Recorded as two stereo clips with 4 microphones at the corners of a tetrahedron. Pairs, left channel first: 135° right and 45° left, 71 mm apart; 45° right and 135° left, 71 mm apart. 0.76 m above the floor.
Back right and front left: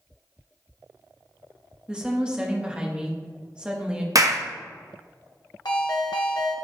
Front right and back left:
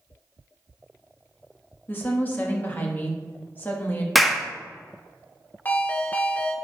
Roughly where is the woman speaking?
Ahead.